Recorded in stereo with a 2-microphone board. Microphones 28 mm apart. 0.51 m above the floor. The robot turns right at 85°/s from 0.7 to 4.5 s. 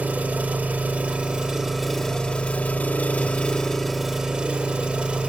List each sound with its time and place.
0.0 s an engine running: 105° right, 0.8 m; by 5.3 s 140° right, 0.8 m